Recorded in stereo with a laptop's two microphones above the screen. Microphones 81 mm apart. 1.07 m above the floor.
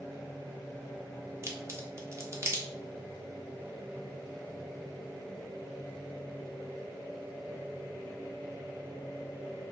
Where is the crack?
35° right (ahead or behind), 1.2 m.